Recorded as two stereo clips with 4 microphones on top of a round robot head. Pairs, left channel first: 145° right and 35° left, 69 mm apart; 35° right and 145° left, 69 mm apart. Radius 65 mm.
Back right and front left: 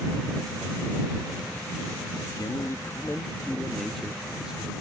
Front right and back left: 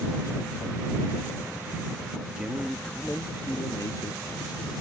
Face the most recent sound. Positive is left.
turn(degrees=-40)